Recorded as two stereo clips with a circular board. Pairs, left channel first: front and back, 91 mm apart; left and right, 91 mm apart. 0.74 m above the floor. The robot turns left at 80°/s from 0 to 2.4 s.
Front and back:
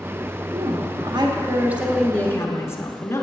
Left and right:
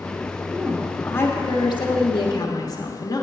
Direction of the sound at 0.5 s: 155° right.